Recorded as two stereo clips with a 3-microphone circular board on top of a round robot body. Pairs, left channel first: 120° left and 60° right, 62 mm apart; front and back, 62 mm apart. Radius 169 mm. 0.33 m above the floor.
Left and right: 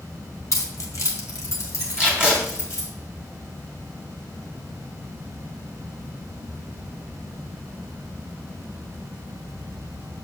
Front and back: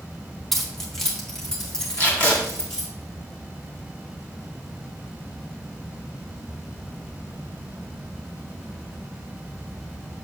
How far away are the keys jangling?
About 1.8 m.